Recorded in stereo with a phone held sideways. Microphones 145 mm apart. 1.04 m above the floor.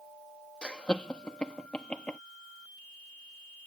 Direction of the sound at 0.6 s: 10° left (ahead or behind).